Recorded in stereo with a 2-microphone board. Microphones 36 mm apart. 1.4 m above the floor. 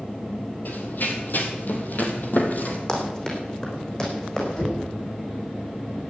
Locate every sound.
0.7 s running footsteps: 60° left (ahead or behind), 2.5 m; by 2.8 s 50° left (ahead or behind), 3 m
2.9 s running footsteps: 20° left (ahead or behind), 5 m; by 4.5 s 25° left (ahead or behind), 6.5 m
4.5 s knocking: 30° left (ahead or behind), 8.5 m